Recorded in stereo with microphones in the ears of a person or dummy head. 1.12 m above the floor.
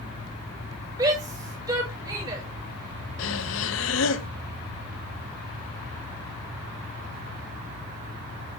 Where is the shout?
25° right (ahead or behind), 5.5 m.